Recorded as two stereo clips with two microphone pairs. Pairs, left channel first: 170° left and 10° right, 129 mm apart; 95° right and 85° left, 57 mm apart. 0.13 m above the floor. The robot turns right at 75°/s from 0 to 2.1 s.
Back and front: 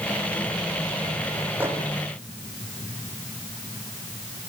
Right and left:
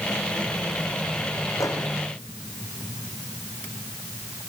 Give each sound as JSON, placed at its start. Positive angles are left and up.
{"t": 1.6, "sound": "a microwave", "azimuth_deg": -85, "distance_m": 5.0}